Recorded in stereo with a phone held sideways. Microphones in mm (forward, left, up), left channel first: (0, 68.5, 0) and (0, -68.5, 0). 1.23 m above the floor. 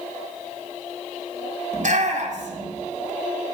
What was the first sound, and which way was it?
A shout, 65° right (ahead or behind).